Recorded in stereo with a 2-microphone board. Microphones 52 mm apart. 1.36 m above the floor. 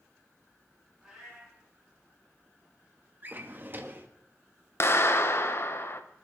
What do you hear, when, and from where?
1.0 s a cat meowing: 5° right (ahead or behind), 5.5 m
3.2 s a drawer: 35° right (ahead or behind), 0.9 m
4.8 s a clap: 50° left (ahead or behind), 0.8 m